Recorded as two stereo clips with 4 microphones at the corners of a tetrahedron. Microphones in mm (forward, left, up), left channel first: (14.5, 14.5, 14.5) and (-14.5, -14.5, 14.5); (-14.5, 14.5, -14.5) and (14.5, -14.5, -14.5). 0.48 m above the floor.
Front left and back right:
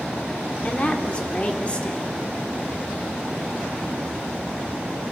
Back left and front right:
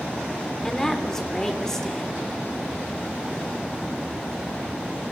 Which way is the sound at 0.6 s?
70° left.